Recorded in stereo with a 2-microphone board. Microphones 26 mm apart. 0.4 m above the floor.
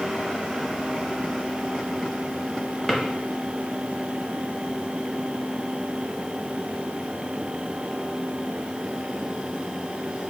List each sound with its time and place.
2.9 s a drawer: 5° left (ahead or behind), 0.8 m